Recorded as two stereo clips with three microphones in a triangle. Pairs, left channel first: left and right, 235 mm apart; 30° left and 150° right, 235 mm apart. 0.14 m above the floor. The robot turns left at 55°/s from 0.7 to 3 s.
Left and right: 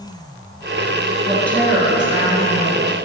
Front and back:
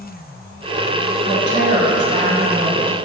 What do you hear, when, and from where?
1.3 s a woman speaking: 20° left, 2.5 m; by 3.0 s 75° right, 2.5 m